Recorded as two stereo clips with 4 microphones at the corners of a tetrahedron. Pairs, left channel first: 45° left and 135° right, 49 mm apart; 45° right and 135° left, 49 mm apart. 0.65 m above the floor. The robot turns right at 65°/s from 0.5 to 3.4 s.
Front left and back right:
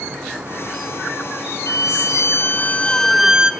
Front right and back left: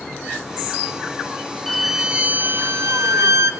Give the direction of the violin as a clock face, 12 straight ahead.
11 o'clock.